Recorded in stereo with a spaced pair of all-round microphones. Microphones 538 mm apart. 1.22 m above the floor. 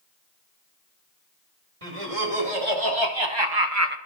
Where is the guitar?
I don't hear a guitar.